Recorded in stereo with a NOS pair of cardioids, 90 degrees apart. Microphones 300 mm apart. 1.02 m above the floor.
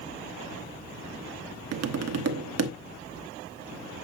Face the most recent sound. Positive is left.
turn(degrees=-60)